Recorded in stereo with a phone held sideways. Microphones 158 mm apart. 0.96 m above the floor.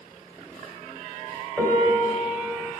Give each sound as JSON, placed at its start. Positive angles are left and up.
{"t": 1.6, "sound": "a piano", "side_deg": -20, "distance_m": 2.0}